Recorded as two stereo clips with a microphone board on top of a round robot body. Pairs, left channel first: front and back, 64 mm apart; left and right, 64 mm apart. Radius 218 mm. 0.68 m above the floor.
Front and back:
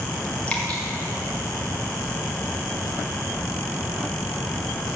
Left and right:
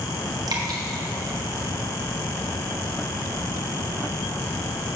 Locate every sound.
0.5 s dripping: 75° right, 0.7 m